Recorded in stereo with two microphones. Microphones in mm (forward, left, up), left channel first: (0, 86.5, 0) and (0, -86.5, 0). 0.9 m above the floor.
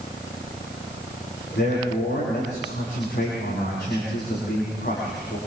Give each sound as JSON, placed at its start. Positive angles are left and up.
{"t": 1.6, "sound": "a man speaking", "side_deg": 75, "distance_m": 8.5}